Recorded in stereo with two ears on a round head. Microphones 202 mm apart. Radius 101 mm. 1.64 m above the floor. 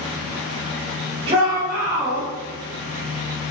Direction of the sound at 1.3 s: 25° right (ahead or behind).